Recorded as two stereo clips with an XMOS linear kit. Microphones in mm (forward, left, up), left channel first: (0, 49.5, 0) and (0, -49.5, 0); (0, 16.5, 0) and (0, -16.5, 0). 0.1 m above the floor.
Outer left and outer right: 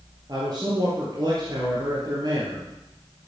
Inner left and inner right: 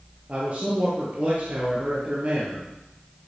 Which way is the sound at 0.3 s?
45° right (ahead or behind).